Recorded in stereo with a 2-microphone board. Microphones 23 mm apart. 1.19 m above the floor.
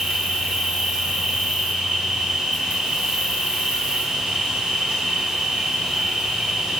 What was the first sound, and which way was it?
An insect, 45° right (ahead or behind).